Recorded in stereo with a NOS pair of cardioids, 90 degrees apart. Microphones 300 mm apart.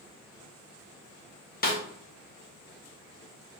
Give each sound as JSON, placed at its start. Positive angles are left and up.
{"t": 1.6, "sound": "a snare drum", "azimuth_deg": 30, "distance_m": 1.6}